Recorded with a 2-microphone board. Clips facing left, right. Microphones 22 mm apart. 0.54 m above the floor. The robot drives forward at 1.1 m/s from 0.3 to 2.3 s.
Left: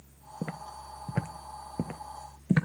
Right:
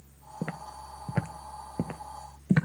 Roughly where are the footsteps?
Centre.